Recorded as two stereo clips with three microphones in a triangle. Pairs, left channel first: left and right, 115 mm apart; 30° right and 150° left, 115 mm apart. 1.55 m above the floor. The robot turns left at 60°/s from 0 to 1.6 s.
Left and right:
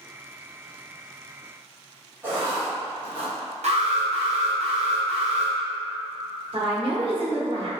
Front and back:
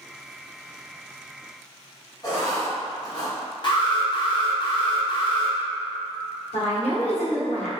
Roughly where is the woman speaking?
Ahead right.